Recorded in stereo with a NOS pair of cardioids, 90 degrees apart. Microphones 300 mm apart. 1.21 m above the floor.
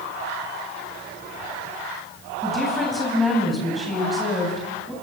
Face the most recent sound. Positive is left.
turn(degrees=0)